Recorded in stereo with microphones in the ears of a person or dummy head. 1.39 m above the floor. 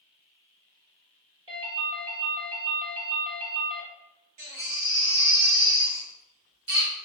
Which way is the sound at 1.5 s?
35° right (ahead or behind).